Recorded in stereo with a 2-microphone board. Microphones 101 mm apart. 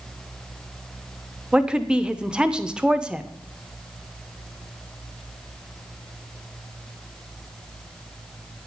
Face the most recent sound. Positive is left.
turn(degrees=-10)  # may be behind; listen again after turning